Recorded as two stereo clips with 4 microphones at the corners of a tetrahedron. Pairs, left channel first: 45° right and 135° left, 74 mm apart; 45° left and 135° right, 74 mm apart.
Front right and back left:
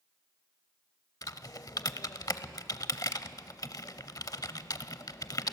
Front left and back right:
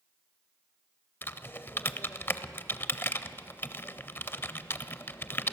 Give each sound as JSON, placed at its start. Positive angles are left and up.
{"t": 1.2, "sound": "typing on a keyboard", "azimuth_deg": -15, "distance_m": 0.6}